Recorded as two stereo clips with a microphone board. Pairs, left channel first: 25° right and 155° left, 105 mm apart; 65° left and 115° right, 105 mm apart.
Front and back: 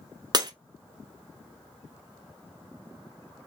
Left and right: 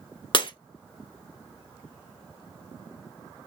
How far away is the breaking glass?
About 0.5 m.